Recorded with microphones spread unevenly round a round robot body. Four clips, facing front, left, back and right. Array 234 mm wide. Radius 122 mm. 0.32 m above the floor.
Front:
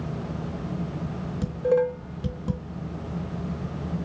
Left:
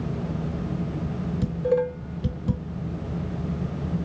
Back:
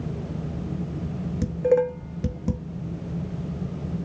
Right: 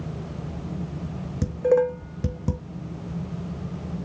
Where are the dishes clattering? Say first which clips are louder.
Right 4 dB, back 2 dB; 100° right, 0.9 m.